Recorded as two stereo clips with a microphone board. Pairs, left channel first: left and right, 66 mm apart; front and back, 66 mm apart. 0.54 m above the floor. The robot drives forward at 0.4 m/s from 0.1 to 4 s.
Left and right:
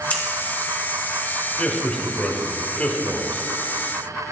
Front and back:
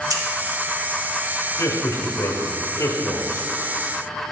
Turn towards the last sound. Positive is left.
turn(degrees=45)